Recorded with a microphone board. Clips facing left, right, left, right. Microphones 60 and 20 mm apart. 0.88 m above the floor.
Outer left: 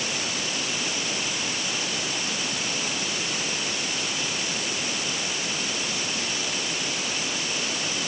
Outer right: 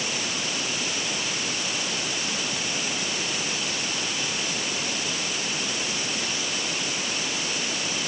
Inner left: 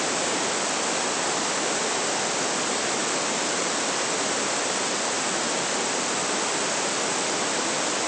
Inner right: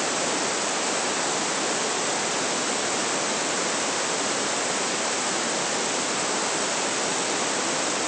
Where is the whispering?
I don't hear whispering.